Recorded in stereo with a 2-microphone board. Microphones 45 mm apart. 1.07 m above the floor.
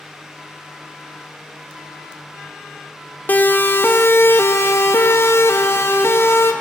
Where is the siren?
40° left (ahead or behind), 2.5 m; by 6.5 s 55° left (ahead or behind), 4 m.